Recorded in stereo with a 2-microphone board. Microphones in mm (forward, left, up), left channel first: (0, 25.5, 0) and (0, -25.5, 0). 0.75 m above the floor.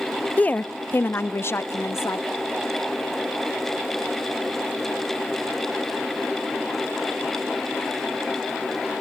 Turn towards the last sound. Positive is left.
turn(degrees=55)  # may be behind; listen again after turning